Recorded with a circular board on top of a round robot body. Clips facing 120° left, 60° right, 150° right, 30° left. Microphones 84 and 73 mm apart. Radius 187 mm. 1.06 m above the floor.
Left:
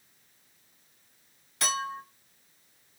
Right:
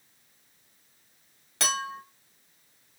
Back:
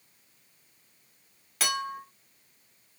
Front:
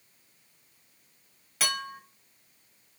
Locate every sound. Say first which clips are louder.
1.6 s a clink: even, back 2 dB; 60° right, 1.3 m